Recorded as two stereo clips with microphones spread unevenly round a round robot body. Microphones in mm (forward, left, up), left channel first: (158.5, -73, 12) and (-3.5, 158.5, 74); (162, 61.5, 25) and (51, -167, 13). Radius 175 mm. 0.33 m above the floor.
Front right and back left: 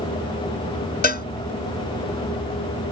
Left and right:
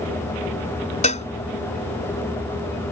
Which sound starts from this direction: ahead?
A cowbell, at 1.0 s.